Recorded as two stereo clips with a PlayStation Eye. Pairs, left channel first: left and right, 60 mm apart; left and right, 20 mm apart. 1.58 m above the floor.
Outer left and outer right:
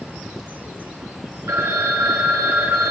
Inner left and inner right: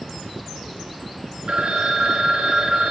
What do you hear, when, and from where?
1.5 s a phone ringing: 50° right (ahead or behind), 1.1 m